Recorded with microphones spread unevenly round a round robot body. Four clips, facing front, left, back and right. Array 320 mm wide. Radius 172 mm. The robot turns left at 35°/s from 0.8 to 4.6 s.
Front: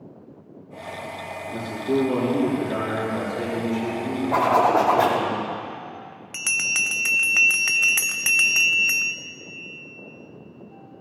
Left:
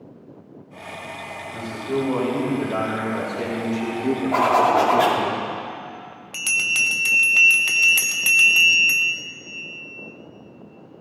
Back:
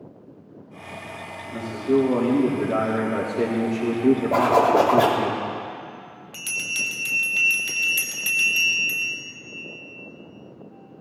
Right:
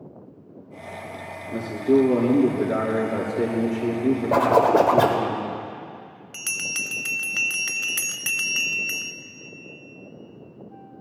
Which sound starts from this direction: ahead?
A bell, at 6.3 s.